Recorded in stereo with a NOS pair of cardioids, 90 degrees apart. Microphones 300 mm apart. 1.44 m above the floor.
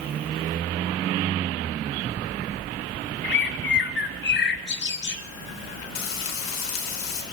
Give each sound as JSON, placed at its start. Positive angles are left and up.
{"t": 3.2, "sound": "a bird", "azimuth_deg": 35, "distance_m": 1.7}
{"t": 6.0, "sound": "frying", "azimuth_deg": 65, "distance_m": 5.5}